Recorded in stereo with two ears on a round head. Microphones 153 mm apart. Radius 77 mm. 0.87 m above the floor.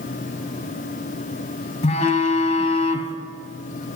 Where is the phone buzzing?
40° left (ahead or behind), 1.4 m.